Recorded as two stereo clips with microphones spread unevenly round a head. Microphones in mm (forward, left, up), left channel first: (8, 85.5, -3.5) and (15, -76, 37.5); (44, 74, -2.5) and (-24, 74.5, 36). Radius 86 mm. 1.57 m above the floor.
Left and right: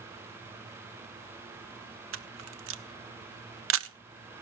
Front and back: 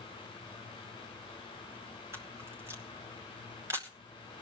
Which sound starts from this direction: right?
A camera shutter, at 2.1 s.